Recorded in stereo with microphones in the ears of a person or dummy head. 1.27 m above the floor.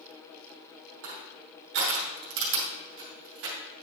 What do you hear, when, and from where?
1.0 s crushing: 65° right (ahead or behind), 2.5 m